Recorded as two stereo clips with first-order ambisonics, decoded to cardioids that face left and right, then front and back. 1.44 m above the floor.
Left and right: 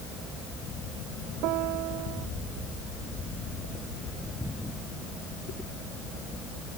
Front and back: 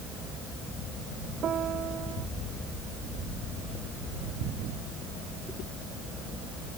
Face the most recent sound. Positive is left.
turn(degrees=-120)